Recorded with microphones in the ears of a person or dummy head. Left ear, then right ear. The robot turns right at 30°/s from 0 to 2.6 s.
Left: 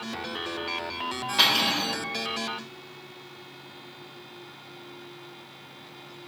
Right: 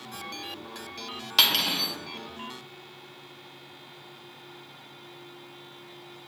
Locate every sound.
1.4 s cutlery clinking: 50° right (ahead or behind), 2.5 m; by 1.9 s 35° right (ahead or behind), 2.5 m